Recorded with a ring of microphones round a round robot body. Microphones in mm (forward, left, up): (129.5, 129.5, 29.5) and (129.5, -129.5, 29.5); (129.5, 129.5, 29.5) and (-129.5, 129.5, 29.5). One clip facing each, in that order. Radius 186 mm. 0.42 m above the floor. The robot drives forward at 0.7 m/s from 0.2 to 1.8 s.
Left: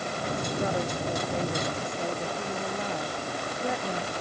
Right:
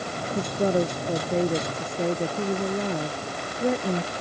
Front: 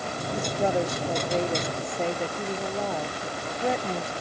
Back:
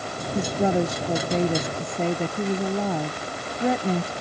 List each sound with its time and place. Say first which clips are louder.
0.3 s a woman speaking: right 8 dB, back 4 dB; 160° right